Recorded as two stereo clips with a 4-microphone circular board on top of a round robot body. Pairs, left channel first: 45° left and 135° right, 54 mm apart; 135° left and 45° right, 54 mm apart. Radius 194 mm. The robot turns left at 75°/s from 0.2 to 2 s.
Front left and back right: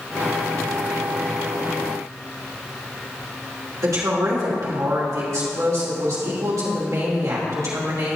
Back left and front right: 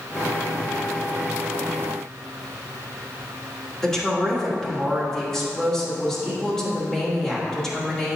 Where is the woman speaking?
140° right, 3 m.